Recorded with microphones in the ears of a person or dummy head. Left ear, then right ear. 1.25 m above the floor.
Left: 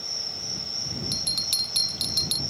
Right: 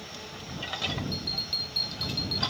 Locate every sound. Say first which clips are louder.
0.0 s an insect: left 9 dB; 80° left
1.1 s a bell: left 5 dB; 65° left (ahead or behind)